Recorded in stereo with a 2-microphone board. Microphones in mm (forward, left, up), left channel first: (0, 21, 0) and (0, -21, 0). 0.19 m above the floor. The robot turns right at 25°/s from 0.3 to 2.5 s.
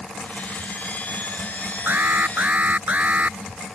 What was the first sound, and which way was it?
An alarm, 50° right (ahead or behind).